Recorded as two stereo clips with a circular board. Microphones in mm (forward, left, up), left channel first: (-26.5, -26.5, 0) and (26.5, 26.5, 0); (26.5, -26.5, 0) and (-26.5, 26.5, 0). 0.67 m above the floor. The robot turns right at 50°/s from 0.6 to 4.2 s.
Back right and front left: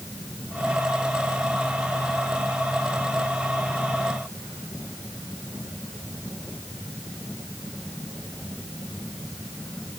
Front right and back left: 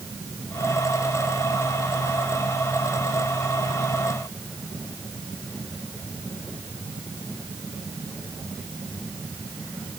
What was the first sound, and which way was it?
Only background noise.